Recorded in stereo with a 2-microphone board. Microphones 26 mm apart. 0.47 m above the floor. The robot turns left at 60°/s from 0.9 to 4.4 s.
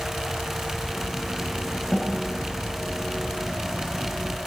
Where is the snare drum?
15° left (ahead or behind), 1.7 m; by 2.1 s 25° left (ahead or behind), 1.7 m.